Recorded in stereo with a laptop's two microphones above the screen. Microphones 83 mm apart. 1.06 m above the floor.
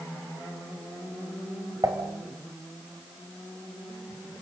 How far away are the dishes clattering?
About 3.5 m.